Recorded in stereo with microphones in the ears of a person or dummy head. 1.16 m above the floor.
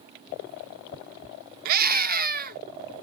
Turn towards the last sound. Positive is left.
turn(degrees=-50)  # may be behind; listen again after turning